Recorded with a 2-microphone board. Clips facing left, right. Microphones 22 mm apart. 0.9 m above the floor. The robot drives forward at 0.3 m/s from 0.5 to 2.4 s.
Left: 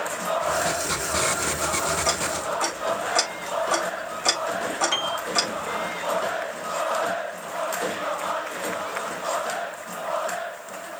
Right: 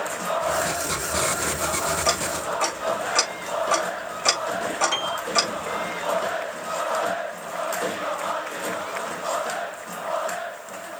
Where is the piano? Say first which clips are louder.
Even; centre (ahead or behind), 3 m.